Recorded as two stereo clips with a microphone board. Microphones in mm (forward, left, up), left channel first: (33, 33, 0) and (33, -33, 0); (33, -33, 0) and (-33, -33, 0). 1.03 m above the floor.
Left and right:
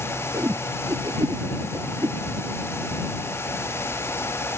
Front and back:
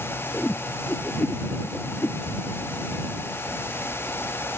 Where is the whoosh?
60° right.